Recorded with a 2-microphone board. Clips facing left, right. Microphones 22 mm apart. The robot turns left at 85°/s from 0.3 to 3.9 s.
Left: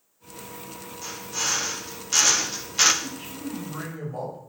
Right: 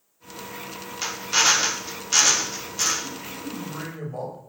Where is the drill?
70° right, 2 m; by 2.9 s 130° left, 2 m.